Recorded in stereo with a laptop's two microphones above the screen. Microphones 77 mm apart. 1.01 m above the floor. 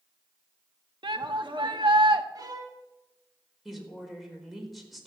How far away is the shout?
About 1.3 m.